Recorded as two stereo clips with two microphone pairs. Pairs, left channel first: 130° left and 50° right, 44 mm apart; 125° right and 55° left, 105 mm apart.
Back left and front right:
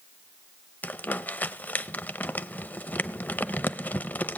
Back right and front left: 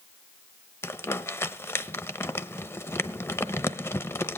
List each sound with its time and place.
0.8 s crumpling: 170° left, 0.8 m